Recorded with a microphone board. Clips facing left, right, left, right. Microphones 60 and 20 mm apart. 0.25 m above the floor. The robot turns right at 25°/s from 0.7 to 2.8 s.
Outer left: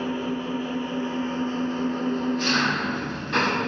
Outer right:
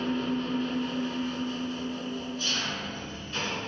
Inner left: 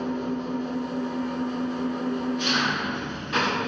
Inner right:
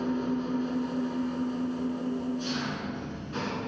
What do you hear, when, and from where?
0.0 s an engine running: 15° left, 1.2 m; by 3.7 s 65° left, 1.2 m